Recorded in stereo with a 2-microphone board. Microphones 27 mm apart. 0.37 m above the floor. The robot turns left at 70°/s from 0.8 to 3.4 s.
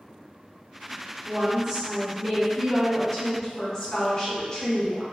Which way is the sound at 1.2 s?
30° right (ahead or behind).